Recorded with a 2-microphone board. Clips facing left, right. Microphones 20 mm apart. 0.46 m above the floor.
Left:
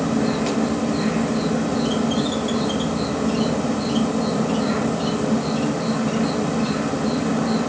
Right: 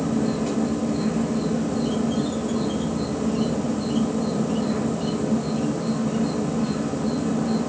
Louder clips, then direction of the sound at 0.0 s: Left 3 dB; 80° left.